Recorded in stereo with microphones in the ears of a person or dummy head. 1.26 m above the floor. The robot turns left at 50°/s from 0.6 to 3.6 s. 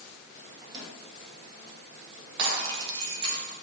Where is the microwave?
20° right (ahead or behind), 1.3 m; by 1.0 s 35° right (ahead or behind), 1.3 m.